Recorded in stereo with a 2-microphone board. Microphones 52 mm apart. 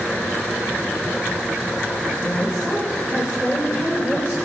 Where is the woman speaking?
25° right (ahead or behind), 4 m.